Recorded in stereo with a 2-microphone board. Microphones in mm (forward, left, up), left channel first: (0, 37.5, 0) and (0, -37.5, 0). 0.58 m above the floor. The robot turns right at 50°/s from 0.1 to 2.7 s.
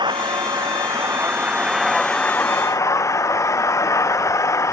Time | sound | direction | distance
0.0 | an engine running | 85° right | ?